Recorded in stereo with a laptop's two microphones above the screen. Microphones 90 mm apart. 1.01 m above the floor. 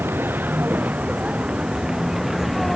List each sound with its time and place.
0.0 s a vehicle: 25° right (ahead or behind); by 2.8 s centre (ahead or behind)